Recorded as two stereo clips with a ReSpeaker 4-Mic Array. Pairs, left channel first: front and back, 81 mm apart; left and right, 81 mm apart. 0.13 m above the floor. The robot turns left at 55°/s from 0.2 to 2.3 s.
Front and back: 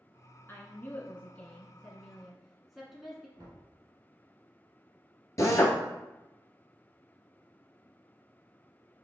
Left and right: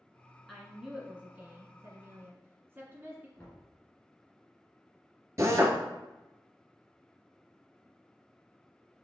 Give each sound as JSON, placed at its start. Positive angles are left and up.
{"t": 0.5, "sound": "a woman speaking", "azimuth_deg": 5, "distance_m": 1.2}
{"t": 3.4, "sound": "knocking", "azimuth_deg": 160, "distance_m": 2.0}
{"t": 5.4, "sound": "a drill", "azimuth_deg": -45, "distance_m": 0.9}